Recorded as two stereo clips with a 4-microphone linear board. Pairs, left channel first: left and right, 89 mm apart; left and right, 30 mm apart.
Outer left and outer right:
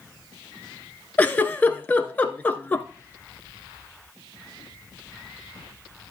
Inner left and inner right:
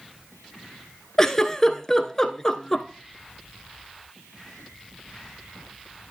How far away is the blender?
I don't hear a blender.